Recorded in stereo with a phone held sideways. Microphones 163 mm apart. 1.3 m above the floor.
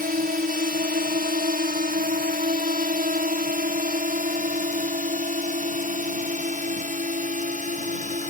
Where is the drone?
65° right (ahead or behind); by 8.3 s 50° right (ahead or behind).